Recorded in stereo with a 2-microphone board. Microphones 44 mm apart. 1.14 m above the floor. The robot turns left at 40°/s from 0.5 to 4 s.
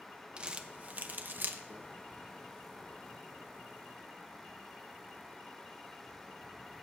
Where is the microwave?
60° right (ahead or behind), 0.9 m; by 1.8 s 65° right (ahead or behind), 0.9 m.